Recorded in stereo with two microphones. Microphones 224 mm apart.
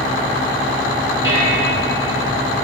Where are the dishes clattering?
60° left (ahead or behind), 4.5 m.